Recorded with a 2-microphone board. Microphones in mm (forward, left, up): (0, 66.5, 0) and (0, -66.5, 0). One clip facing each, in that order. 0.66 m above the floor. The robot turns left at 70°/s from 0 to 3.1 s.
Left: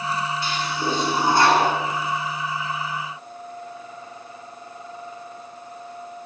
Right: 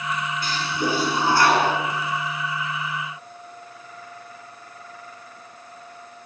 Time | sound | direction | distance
0.4 | a toilet flushing | 135° right | 6.5 m